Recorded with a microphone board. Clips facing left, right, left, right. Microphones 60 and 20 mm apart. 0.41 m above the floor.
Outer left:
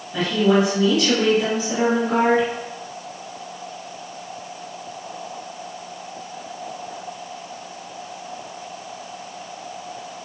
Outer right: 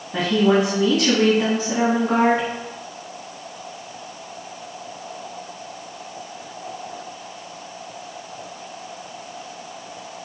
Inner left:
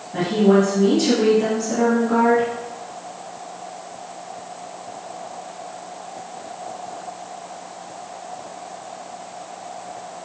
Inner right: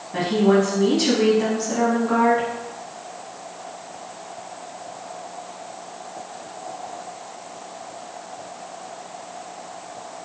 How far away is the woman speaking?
About 3.5 m.